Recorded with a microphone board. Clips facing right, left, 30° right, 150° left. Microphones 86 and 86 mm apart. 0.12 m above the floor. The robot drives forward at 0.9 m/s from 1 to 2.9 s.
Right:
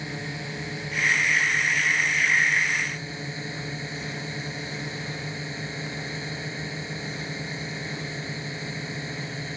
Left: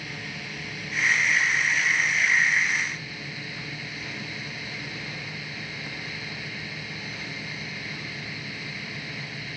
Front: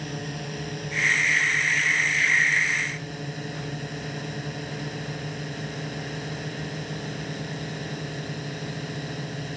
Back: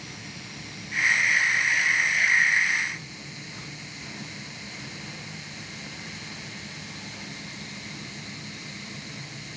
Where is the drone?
30° right.